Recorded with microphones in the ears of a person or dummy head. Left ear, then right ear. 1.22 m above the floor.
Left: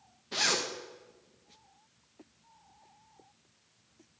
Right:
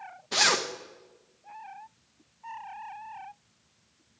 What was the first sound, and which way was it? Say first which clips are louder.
A zipper: right 5 dB; 25° right (ahead or behind).